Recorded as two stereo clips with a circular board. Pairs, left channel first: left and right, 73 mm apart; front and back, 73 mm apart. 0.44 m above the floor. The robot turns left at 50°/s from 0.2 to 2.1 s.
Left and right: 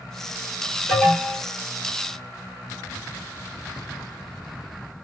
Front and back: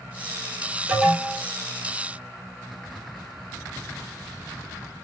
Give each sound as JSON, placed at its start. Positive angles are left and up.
{"t": 0.9, "sound": "an alarm", "azimuth_deg": 160, "distance_m": 1.2}